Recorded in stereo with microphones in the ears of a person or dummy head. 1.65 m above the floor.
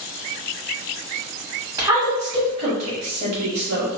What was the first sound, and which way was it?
A woman speaking, 20° right (ahead or behind).